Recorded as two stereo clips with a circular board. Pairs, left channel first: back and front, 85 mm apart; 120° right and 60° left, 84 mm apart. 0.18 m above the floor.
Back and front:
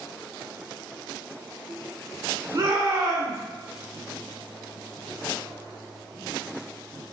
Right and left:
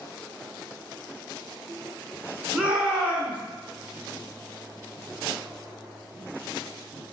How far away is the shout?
About 1.5 m.